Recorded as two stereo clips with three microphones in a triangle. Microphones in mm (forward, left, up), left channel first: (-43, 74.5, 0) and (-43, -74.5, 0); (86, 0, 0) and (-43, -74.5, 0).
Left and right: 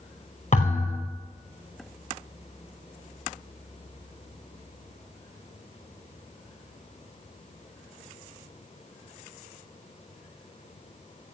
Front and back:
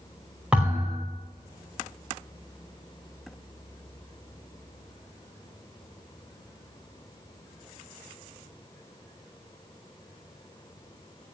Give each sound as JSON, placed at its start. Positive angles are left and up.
{"t": 0.5, "sound": "a thud", "azimuth_deg": 125, "distance_m": 5.5}